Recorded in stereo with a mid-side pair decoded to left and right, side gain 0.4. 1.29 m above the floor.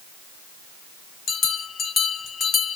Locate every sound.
1.3 s a bell: 60° left, 1.3 m